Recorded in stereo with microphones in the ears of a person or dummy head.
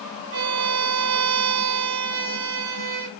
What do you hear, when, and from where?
0.3 s a violin: 75° right (ahead or behind), 3.5 m